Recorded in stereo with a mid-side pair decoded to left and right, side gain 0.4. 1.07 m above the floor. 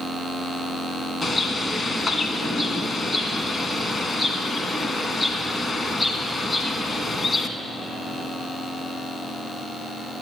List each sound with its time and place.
1.2 s a bird: 40° left, 1.3 m